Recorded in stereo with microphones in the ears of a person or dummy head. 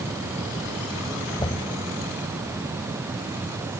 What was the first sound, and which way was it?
Knocking, 20° left (ahead or behind).